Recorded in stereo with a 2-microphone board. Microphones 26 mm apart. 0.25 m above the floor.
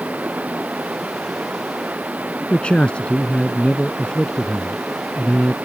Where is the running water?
70° right (ahead or behind).